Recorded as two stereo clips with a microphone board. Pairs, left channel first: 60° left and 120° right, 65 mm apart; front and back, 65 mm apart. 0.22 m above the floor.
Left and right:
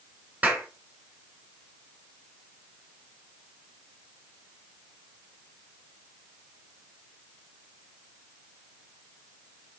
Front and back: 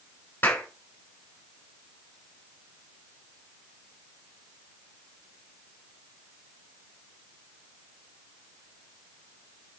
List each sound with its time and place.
0.4 s a clap: 60° right, 1.9 m